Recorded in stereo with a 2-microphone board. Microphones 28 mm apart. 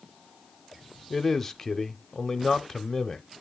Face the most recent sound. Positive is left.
turn(degrees=10)  # may be behind; listen again after turning